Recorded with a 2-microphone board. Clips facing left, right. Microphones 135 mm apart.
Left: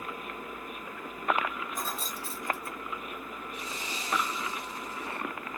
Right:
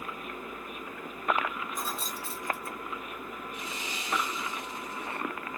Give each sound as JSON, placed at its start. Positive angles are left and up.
{"t": 1.8, "sound": "keys jangling", "side_deg": 0, "distance_m": 0.9}
{"t": 3.5, "sound": "sawing", "side_deg": 35, "distance_m": 1.3}